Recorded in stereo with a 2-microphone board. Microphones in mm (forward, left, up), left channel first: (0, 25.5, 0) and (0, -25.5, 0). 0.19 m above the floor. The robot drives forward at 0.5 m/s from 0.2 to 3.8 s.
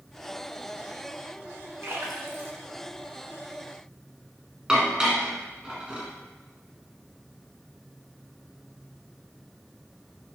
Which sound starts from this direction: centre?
Dishes clattering, at 4.7 s.